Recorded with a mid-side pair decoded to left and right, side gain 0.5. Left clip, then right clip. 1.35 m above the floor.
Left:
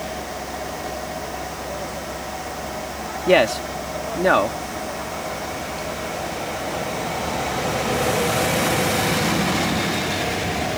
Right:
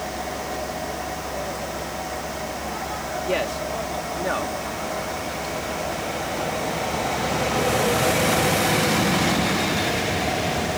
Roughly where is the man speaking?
Ahead left.